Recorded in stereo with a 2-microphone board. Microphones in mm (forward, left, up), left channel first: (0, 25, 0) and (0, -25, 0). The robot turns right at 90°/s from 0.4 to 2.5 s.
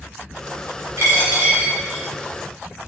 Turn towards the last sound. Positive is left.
turn(degrees=45)